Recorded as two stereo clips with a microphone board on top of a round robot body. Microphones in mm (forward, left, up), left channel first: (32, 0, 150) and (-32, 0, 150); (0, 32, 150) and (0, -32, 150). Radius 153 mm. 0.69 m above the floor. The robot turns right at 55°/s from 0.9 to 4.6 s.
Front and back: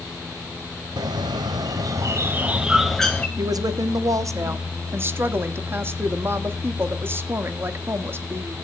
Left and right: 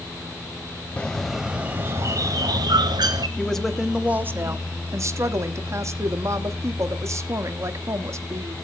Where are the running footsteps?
No running footsteps in this recording.